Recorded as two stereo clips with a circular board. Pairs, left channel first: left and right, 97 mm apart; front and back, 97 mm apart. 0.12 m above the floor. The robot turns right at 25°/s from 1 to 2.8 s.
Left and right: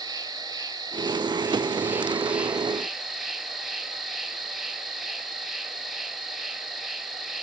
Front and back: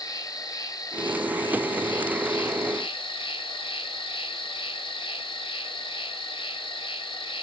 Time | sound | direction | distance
0.0 | an insect | 45° right | 0.8 m